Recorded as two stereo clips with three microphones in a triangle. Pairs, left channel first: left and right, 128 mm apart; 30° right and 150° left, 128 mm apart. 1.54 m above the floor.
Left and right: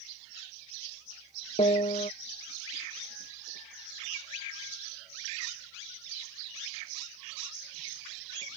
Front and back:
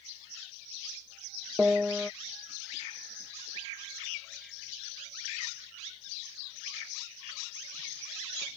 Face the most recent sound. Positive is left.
turn(degrees=70)